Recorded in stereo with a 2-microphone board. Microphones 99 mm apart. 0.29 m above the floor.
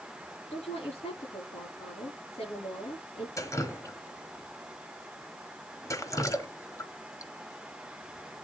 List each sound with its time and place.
0.5 s a woman speaking: 70° left (ahead or behind), 7 m
3.4 s dripping: 30° left (ahead or behind), 1.3 m